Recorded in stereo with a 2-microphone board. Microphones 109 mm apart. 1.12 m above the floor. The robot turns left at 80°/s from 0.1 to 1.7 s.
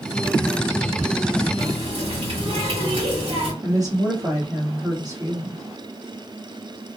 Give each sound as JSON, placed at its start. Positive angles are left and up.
{"t": 1.6, "sound": "a running tap", "side_deg": -70, "distance_m": 1.7}
{"t": 3.6, "sound": "a woman speaking", "side_deg": -30, "distance_m": 1.6}